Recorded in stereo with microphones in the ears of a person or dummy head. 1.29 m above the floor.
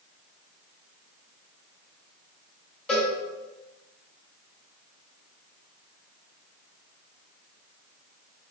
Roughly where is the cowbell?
Centre.